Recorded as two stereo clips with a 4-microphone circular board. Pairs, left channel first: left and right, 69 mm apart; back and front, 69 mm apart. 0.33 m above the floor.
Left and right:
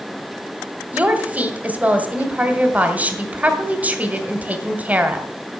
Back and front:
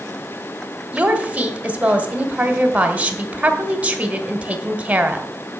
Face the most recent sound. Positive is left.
turn(degrees=-50)